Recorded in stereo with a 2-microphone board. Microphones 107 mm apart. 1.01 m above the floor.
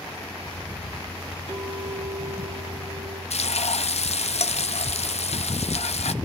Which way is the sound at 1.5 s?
65° left (ahead or behind).